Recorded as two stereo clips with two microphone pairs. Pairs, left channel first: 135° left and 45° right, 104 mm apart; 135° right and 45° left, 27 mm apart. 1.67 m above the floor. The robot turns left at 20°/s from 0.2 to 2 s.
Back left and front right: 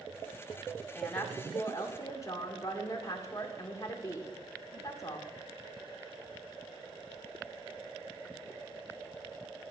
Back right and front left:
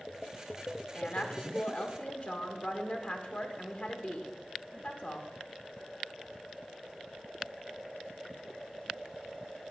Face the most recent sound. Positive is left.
turn(degrees=-170)